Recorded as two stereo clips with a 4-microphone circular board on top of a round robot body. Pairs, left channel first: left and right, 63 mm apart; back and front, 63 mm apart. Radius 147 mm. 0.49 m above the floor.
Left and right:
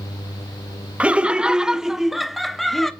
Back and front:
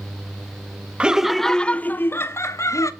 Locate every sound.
1.0 s laughter: 50° right, 0.8 m; by 2.9 s straight behind, 1.1 m